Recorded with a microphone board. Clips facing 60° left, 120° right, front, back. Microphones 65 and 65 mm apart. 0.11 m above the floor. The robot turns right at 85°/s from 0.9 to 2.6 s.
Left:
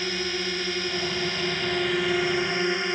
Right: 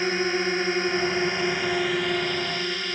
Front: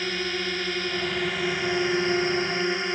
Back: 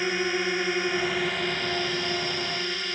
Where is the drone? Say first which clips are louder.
Right 5 dB, back 3 dB; 125° right; by 3.0 s 20° left.